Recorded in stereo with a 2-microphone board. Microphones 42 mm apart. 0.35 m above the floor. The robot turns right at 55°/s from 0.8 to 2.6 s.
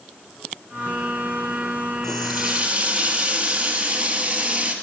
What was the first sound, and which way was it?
A running tap, 175° left.